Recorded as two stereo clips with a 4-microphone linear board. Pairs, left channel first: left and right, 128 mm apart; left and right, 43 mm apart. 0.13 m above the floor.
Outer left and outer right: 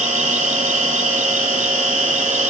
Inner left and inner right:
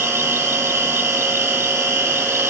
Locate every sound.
0.0 s an insect: 75° right (ahead or behind), 0.7 m